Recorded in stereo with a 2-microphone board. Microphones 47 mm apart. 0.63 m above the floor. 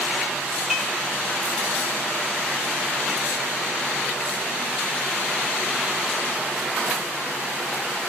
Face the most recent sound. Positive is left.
turn(degrees=-10)  # may be behind; listen again after turning